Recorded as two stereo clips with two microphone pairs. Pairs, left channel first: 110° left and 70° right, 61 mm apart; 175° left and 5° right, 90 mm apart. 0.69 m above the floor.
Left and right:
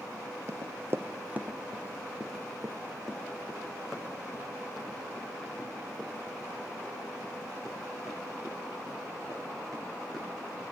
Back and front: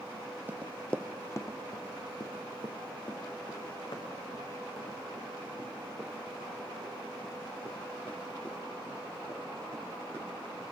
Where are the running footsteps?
70° right, 0.9 m; by 10.6 s 165° right, 11 m.